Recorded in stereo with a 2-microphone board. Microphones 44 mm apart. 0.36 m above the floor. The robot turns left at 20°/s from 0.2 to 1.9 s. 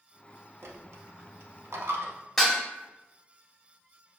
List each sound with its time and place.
0.6 s a dropped coin: 70° right (ahead or behind), 0.6 m; by 2.1 s 80° right, 0.6 m
2.4 s dishes clattering: 5° left (ahead or behind), 1.0 m